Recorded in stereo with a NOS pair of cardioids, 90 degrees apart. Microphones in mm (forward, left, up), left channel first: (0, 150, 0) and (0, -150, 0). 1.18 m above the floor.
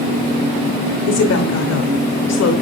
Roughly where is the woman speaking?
Ahead left.